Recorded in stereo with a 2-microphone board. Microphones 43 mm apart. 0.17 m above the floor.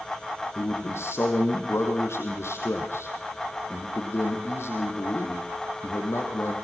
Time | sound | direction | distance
0.6 | a man speaking | 75° left (ahead or behind) | 5 m